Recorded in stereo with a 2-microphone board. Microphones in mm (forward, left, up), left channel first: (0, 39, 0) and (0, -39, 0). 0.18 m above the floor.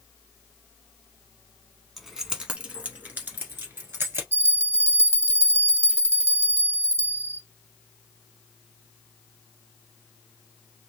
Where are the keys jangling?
Centre (ahead or behind), 0.9 m; by 4.2 s 30° right (ahead or behind), 1.9 m.